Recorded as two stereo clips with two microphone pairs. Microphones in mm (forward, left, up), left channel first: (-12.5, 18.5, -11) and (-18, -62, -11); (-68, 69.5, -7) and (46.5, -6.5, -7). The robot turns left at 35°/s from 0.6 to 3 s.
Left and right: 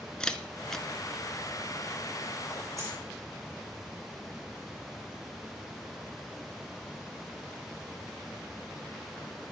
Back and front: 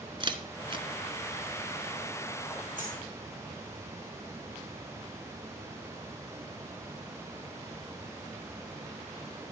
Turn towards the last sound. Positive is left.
turn(degrees=-55)